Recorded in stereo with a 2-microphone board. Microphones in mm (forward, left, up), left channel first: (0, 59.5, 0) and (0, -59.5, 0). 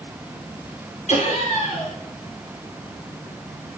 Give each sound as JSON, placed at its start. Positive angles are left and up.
{"t": 1.1, "sound": "laughter", "side_deg": 65, "distance_m": 4.5}